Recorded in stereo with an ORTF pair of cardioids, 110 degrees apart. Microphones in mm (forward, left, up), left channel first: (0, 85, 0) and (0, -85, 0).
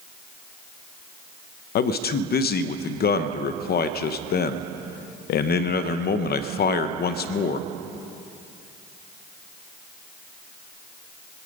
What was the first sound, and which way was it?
A man speaking, 70° left.